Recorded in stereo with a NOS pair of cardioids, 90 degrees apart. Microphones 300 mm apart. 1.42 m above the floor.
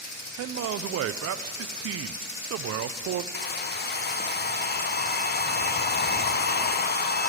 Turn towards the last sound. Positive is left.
turn(degrees=35)